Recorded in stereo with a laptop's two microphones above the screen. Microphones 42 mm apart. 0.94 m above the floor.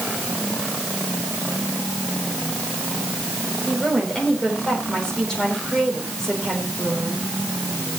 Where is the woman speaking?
15° left (ahead or behind), 3.5 m.